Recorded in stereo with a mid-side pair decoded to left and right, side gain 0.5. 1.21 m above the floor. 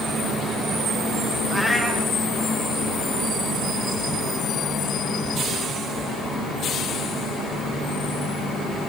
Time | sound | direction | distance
1.5 | a cat meowing | 15° right | 5.5 m